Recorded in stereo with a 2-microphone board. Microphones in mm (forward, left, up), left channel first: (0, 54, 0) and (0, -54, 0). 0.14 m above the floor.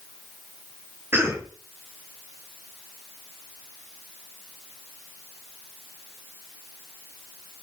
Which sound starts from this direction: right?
A cough, at 1.1 s.